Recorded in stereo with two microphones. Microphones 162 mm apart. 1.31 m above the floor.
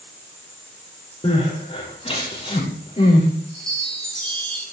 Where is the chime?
Centre (ahead or behind), 7.5 m.